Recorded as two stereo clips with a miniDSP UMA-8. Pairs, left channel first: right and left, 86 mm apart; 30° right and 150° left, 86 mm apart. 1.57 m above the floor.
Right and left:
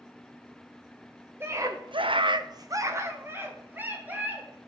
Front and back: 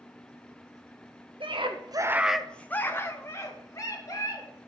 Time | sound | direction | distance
1.4 | a scream | 155° left | 1.0 m